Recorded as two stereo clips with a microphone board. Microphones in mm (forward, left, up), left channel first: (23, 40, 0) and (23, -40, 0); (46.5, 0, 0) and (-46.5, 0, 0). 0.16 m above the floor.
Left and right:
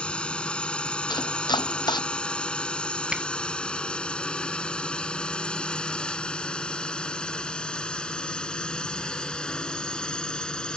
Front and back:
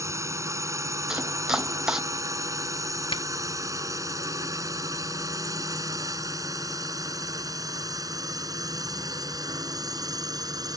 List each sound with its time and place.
0.0 s a drone: 155° left; by 10.8 s 165° left
1.1 s chopping: 100° left
3.1 s a finger snap: 10° right